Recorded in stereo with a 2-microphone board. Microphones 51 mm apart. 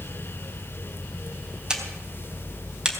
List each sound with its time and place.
1.7 s a camera shutter: 15° right (ahead or behind), 3 m